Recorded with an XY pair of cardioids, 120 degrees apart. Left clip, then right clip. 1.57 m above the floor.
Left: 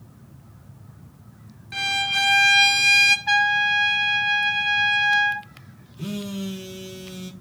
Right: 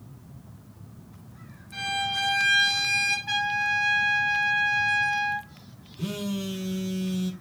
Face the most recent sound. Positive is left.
turn(degrees=5)